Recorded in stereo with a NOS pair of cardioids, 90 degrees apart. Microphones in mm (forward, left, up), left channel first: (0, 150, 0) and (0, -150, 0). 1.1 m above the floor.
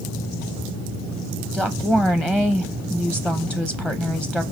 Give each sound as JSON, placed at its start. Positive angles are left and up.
{"t": 1.5, "sound": "a woman speaking", "azimuth_deg": 0, "distance_m": 0.6}